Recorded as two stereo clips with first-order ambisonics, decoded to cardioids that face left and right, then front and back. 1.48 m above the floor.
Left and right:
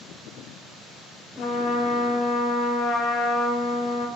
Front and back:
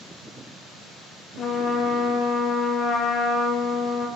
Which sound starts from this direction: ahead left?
A trumpet, at 1.4 s.